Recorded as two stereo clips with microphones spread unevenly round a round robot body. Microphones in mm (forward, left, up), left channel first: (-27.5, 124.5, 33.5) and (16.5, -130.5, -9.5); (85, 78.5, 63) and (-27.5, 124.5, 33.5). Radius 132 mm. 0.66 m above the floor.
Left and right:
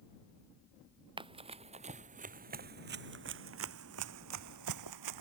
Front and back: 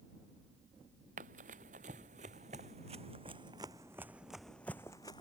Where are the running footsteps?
155° right; by 5.2 s 90° right.